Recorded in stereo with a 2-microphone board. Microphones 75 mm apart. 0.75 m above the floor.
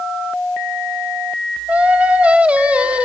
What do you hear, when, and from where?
1.7 s singing: 15° right (ahead or behind), 1.5 m